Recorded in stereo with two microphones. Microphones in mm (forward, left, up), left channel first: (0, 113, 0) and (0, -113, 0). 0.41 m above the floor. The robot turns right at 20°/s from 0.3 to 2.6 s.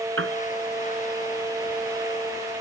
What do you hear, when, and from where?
0.2 s a piano: 65° right (ahead or behind)